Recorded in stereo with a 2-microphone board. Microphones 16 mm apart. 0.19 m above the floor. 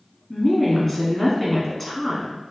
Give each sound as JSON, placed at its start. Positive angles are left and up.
{"t": 0.3, "sound": "a woman speaking", "side_deg": 15, "distance_m": 1.2}